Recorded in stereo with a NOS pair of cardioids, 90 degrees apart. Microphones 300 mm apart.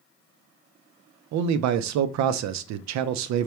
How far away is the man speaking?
About 0.5 m.